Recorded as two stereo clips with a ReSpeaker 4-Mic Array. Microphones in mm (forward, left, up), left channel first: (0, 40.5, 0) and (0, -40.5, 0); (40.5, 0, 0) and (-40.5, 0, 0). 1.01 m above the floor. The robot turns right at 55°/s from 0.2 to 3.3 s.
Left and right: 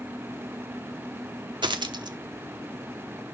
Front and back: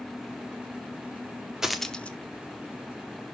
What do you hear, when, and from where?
1.6 s a dropped coin: 100° right, 1.0 m; by 2.2 s 65° right, 1.0 m